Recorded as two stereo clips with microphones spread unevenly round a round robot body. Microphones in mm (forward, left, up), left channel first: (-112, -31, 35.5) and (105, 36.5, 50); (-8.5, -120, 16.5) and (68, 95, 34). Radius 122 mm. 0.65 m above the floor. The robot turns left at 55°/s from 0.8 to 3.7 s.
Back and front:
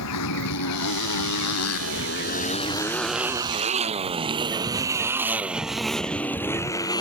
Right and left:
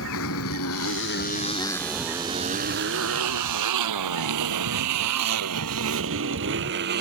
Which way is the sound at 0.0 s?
150° right.